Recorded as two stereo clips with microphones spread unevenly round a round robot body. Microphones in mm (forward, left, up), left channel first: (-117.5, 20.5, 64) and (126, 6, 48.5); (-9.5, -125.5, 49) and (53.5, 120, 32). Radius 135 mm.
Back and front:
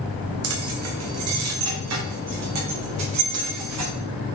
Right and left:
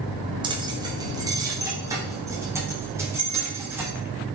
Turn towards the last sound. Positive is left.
turn(degrees=-5)